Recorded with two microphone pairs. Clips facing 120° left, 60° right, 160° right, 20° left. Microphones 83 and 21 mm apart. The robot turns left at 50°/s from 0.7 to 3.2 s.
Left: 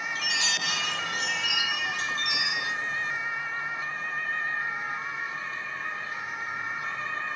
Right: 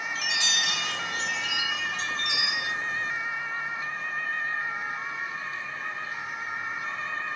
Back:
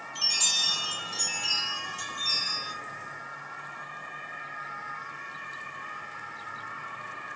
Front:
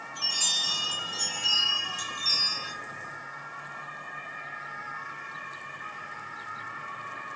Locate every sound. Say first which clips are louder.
0.1 s a chime: right 1 dB, back 1 dB; 165° left, 2 m; by 2.7 s 65° left, 2 m